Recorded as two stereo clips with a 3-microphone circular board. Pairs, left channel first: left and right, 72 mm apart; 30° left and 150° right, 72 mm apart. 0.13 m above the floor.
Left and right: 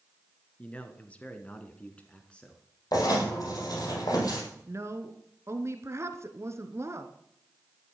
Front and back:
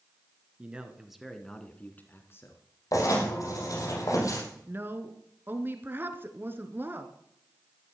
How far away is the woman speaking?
About 1.6 m.